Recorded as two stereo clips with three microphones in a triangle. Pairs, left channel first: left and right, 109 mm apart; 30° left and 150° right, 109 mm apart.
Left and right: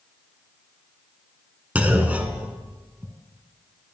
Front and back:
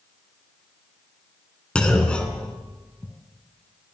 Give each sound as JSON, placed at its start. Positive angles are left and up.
{"t": 1.8, "sound": "a clunk", "azimuth_deg": -40, "distance_m": 1.8}